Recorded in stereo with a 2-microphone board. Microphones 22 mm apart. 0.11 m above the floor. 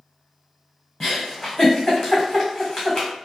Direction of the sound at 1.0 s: 40° left (ahead or behind).